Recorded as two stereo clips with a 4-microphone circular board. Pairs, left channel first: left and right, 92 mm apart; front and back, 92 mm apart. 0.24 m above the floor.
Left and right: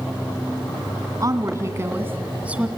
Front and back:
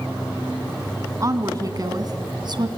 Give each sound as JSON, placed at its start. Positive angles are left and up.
{"t": 1.2, "sound": "a woman speaking", "azimuth_deg": -135, "distance_m": 2.0}